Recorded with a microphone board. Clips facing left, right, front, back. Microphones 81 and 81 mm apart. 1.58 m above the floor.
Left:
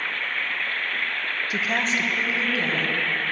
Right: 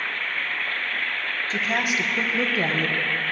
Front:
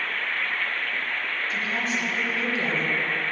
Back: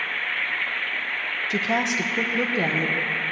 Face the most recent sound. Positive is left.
turn(degrees=-130)